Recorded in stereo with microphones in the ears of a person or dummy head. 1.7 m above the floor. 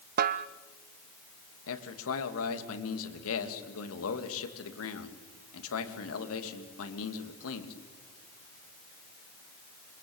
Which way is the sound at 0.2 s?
45° right (ahead or behind).